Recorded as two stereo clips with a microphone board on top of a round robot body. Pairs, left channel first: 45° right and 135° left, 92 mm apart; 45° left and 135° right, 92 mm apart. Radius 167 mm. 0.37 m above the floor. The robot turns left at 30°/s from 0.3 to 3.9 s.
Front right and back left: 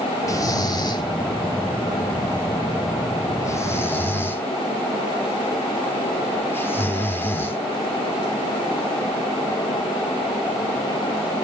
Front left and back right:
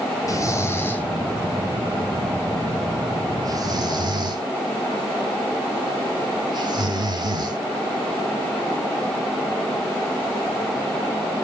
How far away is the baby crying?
I don't hear a baby crying.